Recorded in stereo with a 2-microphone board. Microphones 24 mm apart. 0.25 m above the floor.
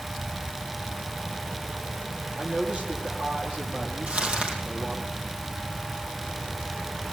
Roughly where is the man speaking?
Right.